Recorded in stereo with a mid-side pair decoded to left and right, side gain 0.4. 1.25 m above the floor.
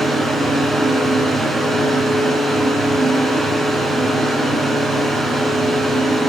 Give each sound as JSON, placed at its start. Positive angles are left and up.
{"t": 0.0, "sound": "a fan", "azimuth_deg": -65, "distance_m": 1.4}